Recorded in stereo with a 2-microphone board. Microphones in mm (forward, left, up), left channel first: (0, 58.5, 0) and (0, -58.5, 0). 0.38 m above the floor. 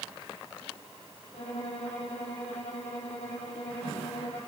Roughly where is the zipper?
No zipper in this recording.